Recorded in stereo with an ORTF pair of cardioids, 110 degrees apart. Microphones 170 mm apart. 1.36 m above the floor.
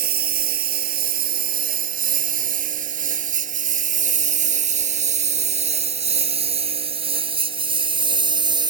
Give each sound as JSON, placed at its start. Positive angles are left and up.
{"t": 0.0, "sound": "a lawn mower", "azimuth_deg": -65}